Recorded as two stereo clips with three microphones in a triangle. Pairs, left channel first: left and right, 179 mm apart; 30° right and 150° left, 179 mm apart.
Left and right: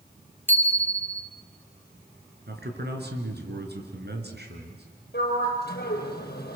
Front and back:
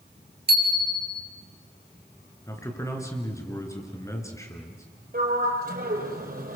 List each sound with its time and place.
0.5 s a bicycle bell: 170° left, 2.5 m
2.5 s a man speaking: 105° right, 4.5 m
5.1 s a sliding door: 115° left, 5 m